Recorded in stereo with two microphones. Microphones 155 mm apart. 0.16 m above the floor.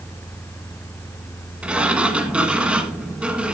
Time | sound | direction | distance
1.6 | a sliding door | 10° right (ahead or behind) | 1.4 m